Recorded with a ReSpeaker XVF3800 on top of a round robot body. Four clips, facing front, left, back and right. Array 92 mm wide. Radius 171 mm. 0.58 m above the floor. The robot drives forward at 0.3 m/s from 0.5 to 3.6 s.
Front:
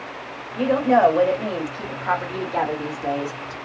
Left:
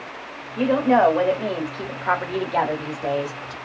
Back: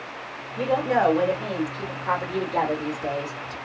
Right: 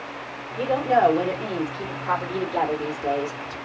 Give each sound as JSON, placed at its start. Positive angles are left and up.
{"t": 0.6, "sound": "a woman speaking", "azimuth_deg": 50, "distance_m": 1.9}